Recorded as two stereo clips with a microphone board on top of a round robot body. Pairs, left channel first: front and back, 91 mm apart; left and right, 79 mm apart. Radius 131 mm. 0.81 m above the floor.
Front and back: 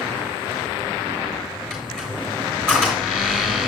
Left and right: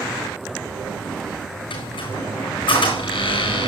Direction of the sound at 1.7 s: 80° left.